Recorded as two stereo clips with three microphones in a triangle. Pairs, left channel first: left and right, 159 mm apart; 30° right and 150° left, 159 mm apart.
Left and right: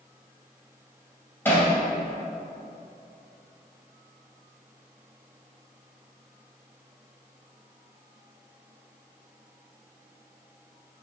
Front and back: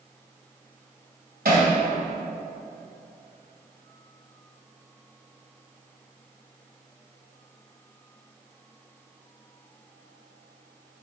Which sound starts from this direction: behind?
Hammering, at 1.4 s.